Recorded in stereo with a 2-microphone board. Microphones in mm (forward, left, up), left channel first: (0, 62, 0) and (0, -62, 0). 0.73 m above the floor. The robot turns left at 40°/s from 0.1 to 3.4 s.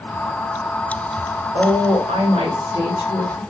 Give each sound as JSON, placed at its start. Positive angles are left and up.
{"t": 1.5, "sound": "a woman speaking", "azimuth_deg": -85, "distance_m": 1.9}